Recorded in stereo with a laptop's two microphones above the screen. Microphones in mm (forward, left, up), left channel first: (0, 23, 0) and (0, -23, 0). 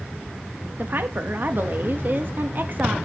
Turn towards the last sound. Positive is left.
turn(degrees=-45)  # may be behind; listen again after turning